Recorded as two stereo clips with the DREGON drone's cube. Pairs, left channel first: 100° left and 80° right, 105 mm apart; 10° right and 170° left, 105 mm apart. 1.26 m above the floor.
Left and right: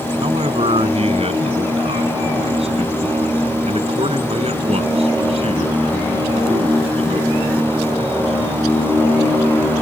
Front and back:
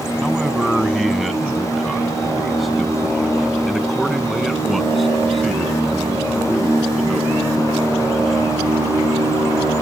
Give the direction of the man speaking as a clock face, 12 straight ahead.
3 o'clock.